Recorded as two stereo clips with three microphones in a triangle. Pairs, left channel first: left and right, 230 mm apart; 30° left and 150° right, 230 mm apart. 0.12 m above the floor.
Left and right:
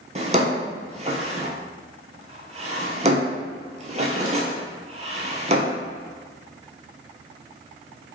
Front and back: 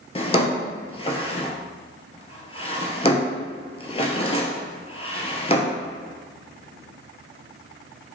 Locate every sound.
0.1 s a drawer: 35° right, 0.6 m